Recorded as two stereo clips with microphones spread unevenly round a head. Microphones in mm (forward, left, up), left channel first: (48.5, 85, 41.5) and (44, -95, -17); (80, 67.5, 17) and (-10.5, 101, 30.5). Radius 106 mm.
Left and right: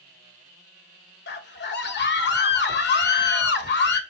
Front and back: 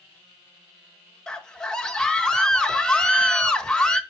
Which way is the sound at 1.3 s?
65° left.